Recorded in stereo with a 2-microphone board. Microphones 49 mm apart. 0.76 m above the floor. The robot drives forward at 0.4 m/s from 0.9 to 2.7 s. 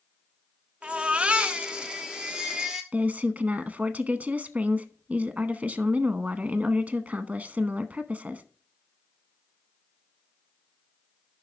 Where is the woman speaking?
30° right (ahead or behind), 0.8 m.